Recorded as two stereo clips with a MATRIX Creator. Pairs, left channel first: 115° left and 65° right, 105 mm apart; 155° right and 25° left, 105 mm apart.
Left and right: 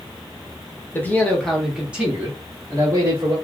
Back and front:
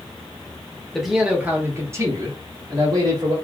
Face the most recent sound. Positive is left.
turn(degrees=-15)